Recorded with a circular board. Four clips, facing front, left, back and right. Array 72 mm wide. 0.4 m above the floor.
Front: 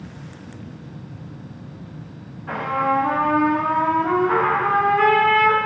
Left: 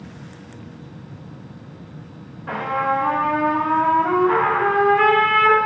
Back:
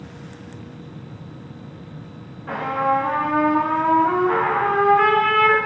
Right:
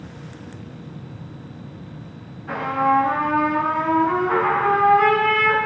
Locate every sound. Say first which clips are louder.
2.5 s a trumpet: right 2 dB, even; 100° left, 1.7 m